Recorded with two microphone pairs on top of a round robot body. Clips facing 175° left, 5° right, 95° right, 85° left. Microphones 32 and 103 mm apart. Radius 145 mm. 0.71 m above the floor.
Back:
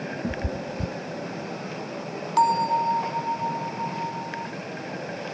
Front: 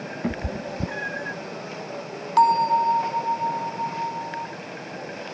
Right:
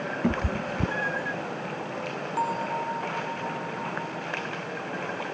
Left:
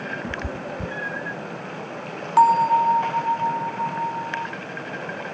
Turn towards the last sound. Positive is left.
turn(degrees=75)